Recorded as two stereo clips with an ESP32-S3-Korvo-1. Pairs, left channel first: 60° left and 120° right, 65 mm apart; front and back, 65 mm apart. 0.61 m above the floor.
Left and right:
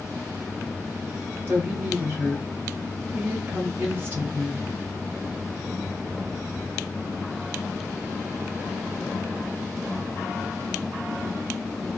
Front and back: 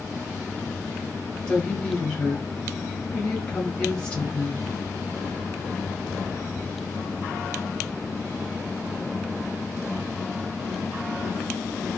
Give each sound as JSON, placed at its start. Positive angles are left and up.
{"t": 1.5, "sound": "a woman speaking", "azimuth_deg": -70, "distance_m": 1.2}